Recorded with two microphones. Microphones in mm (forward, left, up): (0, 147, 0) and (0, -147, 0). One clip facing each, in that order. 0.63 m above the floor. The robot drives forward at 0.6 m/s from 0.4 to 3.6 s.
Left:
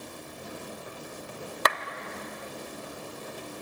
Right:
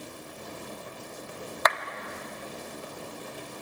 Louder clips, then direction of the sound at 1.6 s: Right 1 dB; 35° left (ahead or behind).